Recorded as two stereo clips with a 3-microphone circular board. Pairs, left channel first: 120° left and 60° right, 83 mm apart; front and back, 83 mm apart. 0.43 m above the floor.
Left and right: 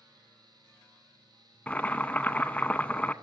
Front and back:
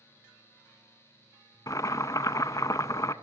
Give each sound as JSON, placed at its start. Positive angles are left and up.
{"t": 1.7, "sound": "boiling", "azimuth_deg": 45, "distance_m": 0.7}